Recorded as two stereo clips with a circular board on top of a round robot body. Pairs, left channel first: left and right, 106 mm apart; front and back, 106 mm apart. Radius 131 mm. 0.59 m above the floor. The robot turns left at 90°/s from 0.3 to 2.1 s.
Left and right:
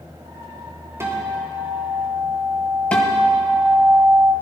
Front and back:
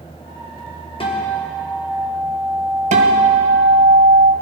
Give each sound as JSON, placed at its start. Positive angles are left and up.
{"t": 1.0, "sound": "a guitar", "azimuth_deg": -25, "distance_m": 3.0}
{"t": 2.9, "sound": "a guitar", "azimuth_deg": 170, "distance_m": 1.2}